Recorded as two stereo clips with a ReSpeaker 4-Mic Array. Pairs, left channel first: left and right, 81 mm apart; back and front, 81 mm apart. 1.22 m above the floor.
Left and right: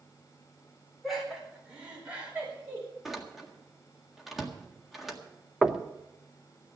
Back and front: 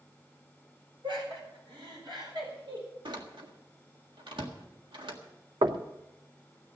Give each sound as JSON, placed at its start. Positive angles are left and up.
{"t": 1.0, "sound": "laughter", "azimuth_deg": 0, "distance_m": 4.0}
{"t": 3.0, "sound": "a door slam", "azimuth_deg": -5, "distance_m": 1.7}
{"t": 5.6, "sound": "knocking", "azimuth_deg": -10, "distance_m": 0.8}